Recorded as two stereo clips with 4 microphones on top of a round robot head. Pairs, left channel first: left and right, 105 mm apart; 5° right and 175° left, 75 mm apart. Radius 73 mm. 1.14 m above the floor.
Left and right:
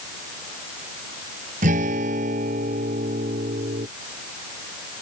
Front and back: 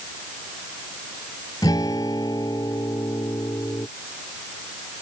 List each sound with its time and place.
1.6 s a guitar: 65° right